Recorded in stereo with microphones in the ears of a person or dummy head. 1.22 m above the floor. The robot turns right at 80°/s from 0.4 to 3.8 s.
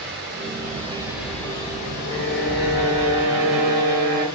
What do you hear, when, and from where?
0.0 s running water: 70° right, 1.9 m; by 4.4 s 160° right, 1.9 m
2.1 s a violin: 145° left, 1.2 m; by 4.3 s 75° right, 1.2 m